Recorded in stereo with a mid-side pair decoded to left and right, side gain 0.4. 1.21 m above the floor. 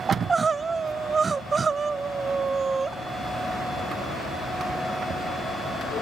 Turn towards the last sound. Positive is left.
turn(degrees=-40)